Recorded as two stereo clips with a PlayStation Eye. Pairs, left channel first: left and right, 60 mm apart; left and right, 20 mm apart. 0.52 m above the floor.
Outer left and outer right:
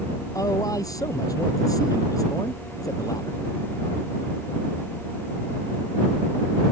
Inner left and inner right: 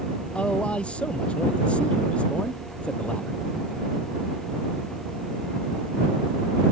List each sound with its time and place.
0.3 s a man speaking: 75° left (ahead or behind)